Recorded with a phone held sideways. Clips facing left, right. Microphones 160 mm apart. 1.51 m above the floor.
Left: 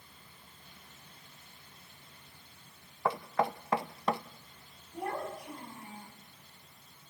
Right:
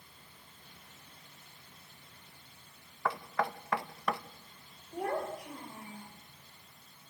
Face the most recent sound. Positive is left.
turn(degrees=-80)